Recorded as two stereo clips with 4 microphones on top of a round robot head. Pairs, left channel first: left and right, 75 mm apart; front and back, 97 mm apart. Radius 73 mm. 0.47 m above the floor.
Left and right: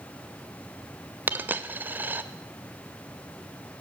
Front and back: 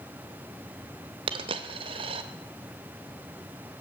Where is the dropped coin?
155° right, 0.9 m.